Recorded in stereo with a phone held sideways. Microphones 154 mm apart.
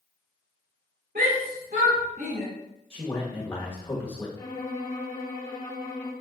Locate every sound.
1.1 s a shout: 70° right (ahead or behind), 2.5 m
2.9 s a man speaking: 15° left (ahead or behind), 1.6 m
4.4 s a violin: 25° left (ahead or behind), 2 m